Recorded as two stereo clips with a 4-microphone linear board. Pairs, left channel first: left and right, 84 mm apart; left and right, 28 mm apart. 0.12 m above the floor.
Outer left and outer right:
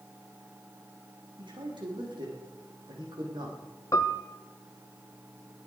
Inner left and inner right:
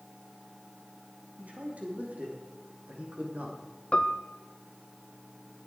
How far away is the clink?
No clink in this recording.